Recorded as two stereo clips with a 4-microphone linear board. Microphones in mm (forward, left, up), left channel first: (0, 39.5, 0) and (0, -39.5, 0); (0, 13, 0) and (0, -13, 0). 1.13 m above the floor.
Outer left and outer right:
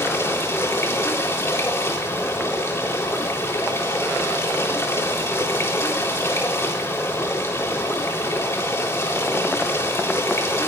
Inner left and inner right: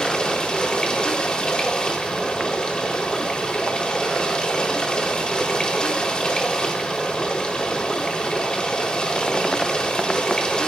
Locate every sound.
0.0 s running water: 35° left (ahead or behind), 3.5 m